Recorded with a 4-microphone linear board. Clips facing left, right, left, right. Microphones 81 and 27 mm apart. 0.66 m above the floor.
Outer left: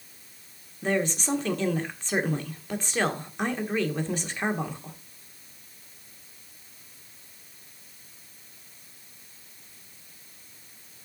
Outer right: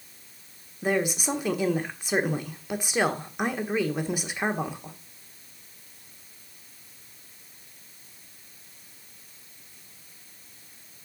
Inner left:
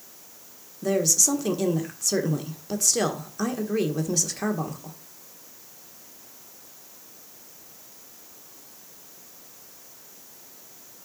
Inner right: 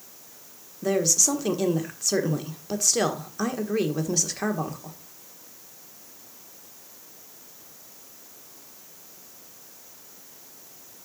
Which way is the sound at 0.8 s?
10° right (ahead or behind).